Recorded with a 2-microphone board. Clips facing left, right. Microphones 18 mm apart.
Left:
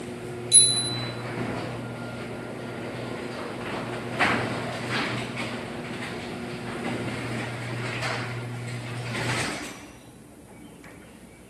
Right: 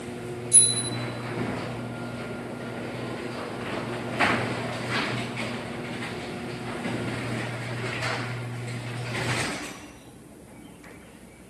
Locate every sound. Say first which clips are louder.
0.5 s a bicycle bell: left 5 dB; 55° left (ahead or behind), 9 m